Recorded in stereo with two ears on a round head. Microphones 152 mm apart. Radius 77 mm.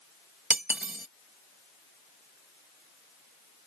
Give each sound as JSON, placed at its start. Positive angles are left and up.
{"t": 0.5, "sound": "cutlery clinking", "side_deg": -10}